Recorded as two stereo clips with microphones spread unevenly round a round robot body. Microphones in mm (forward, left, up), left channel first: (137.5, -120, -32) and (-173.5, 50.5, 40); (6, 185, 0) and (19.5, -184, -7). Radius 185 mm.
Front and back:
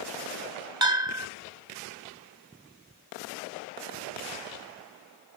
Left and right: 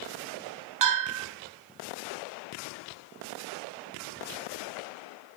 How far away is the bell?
About 3 m.